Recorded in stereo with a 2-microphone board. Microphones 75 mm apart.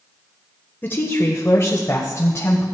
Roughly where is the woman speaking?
Left.